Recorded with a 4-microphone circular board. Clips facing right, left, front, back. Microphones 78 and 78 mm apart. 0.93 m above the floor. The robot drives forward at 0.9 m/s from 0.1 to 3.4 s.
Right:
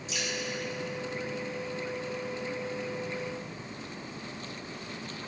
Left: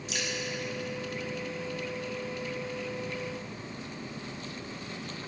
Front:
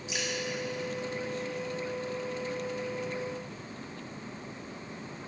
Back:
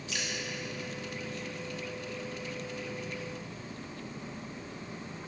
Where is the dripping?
70° left, 1.9 m; by 0.3 s 75° left, 1.9 m.